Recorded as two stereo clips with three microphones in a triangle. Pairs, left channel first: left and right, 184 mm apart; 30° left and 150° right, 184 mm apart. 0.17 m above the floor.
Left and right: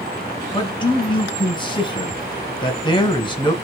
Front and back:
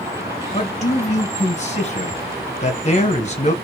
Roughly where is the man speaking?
Ahead left.